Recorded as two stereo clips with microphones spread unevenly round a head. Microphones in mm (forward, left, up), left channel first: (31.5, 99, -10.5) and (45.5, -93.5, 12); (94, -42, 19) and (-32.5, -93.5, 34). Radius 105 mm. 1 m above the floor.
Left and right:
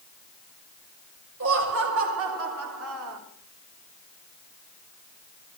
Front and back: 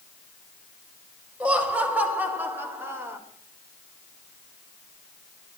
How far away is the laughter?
About 5.5 m.